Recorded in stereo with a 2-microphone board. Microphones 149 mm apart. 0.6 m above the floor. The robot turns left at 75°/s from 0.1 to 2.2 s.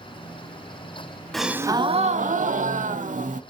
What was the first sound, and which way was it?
A gasp, straight ahead.